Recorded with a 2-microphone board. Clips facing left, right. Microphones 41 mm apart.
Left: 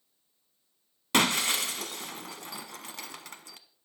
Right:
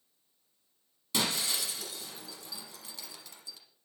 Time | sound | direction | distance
1.1 | breaking glass | 60° left (ahead or behind) | 0.8 m